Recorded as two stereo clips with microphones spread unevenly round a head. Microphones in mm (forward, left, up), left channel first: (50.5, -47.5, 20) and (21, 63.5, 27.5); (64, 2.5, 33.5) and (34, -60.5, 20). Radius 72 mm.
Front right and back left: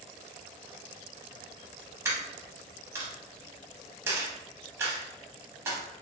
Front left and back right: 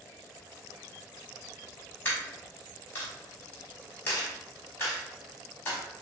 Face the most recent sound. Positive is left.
turn(degrees=60)